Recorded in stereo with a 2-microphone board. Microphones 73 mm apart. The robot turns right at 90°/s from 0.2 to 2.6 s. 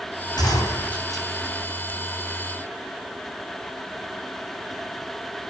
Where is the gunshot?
105° left, 6.5 m; by 1.3 s 175° right, 6.5 m.